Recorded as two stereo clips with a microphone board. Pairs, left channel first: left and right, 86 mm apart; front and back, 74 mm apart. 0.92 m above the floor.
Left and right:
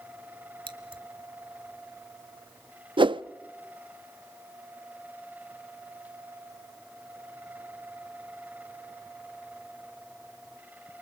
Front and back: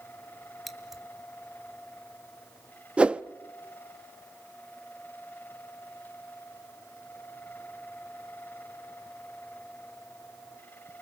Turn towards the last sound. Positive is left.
turn(degrees=-105)